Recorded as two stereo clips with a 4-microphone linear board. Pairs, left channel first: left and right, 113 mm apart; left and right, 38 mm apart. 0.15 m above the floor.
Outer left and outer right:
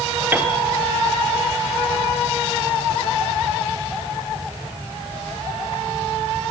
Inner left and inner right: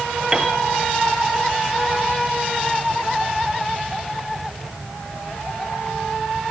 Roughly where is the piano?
Centre.